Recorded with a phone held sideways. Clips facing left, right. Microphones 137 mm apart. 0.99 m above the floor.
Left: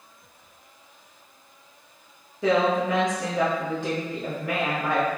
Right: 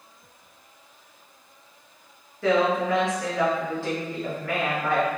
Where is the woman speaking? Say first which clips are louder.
Even; 15° left (ahead or behind), 0.7 m.